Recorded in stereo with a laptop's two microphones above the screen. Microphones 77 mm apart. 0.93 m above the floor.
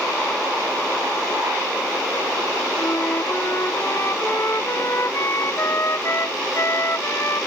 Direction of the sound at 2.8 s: 40° left (ahead or behind).